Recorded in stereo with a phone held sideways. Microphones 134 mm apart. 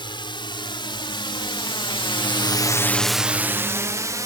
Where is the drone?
35° left (ahead or behind); by 4.3 s 25° right (ahead or behind).